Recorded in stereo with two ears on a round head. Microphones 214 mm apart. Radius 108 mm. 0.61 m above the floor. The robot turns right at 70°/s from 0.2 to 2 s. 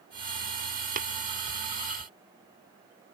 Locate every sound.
1.0 s tapping: 35° right (ahead or behind); by 1.1 s 45° right (ahead or behind)